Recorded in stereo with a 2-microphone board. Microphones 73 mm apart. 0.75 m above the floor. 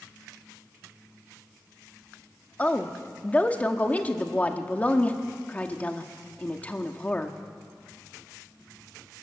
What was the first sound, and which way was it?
A woman speaking, 20° left (ahead or behind).